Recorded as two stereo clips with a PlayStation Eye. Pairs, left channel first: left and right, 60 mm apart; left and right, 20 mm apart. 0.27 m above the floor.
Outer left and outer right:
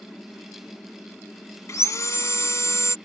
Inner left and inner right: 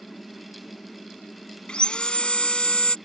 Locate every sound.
1.7 s sawing: 55° left (ahead or behind)